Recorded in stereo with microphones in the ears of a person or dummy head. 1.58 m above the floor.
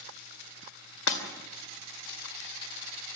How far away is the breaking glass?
About 3 m.